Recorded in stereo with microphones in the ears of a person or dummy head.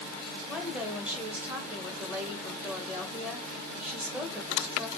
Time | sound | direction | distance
0.5 | a woman speaking | 10° right (ahead or behind) | 1.9 m